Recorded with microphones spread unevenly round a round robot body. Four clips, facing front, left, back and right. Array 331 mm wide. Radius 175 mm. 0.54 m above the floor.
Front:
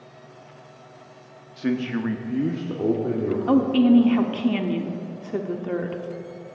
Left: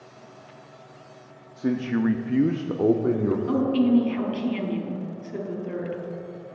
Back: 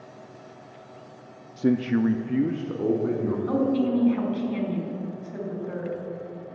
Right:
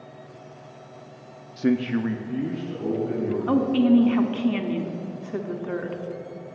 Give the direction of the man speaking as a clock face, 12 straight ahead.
5 o'clock.